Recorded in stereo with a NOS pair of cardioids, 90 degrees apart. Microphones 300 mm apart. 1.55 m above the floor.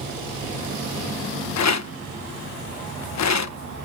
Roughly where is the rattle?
Ahead left.